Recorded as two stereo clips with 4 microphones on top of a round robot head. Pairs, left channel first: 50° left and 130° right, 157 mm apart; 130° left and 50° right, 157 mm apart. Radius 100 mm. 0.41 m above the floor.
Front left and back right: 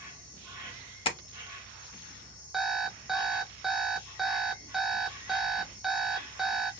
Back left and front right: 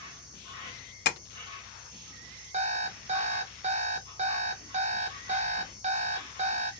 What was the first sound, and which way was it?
An insect, 70° right.